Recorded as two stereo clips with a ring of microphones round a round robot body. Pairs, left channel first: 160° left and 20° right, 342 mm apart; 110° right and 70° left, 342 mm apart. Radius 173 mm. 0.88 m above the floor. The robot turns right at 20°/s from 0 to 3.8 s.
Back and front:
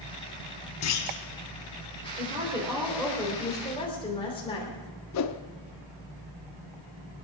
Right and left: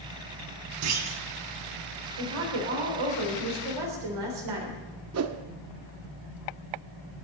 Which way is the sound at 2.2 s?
50° left.